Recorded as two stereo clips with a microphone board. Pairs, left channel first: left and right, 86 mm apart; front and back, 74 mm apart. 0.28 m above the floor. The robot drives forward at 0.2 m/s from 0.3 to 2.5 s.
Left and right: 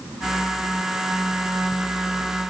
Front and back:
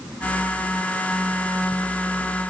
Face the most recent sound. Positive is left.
No sound to turn to.